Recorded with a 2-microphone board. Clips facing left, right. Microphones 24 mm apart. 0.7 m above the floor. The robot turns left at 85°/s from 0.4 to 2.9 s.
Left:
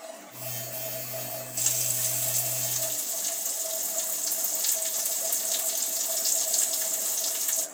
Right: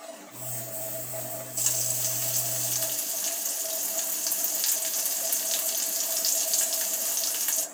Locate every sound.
1.6 s frying: 5° left, 1.4 m; by 7.7 s 110° right, 1.4 m